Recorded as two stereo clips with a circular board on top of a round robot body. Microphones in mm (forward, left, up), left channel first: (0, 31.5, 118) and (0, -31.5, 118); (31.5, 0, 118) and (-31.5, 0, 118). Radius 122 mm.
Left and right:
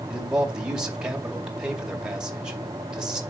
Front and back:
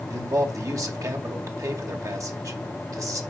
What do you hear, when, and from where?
0.1 s a man speaking: 165° right, 2.5 m